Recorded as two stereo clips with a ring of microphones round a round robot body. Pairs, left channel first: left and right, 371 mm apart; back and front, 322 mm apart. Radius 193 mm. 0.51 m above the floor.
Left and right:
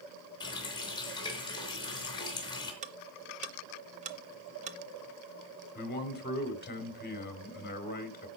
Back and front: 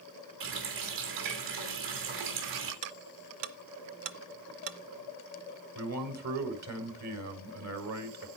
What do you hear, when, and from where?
0.4 s a running tap: 10° left, 3.5 m
2.8 s ticking: 20° right, 0.7 m
5.8 s a man speaking: 30° left, 2 m